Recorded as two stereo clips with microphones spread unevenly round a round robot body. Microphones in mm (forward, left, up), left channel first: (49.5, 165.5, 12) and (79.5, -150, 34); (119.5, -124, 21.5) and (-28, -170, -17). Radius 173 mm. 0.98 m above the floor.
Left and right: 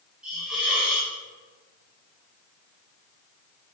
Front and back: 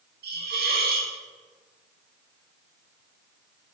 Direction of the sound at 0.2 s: 175° right.